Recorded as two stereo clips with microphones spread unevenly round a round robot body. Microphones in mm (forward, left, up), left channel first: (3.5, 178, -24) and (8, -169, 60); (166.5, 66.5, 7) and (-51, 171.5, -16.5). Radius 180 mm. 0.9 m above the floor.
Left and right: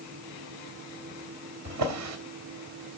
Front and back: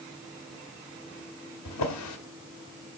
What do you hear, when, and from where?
1.6 s a drawer: 45° right, 1.4 m